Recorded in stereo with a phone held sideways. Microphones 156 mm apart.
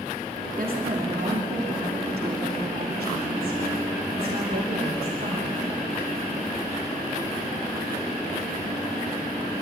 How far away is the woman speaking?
About 3 m.